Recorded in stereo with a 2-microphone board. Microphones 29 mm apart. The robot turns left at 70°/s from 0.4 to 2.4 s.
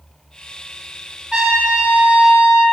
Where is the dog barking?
No dog barking in this recording.